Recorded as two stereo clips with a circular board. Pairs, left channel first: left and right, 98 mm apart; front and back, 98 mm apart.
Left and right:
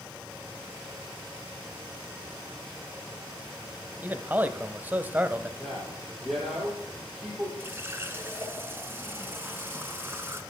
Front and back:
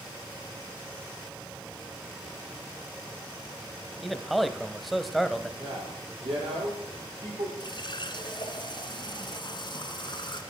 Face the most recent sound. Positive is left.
turn(degrees=-25)